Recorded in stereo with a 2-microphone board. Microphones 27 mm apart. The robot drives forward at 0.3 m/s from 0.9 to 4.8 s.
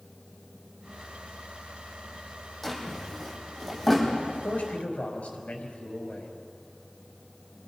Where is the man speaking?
55° left (ahead or behind), 5 m.